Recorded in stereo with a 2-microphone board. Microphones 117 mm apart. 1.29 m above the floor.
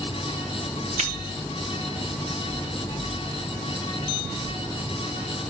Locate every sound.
1.0 s a finger snap: 75° right (ahead or behind), 1.6 m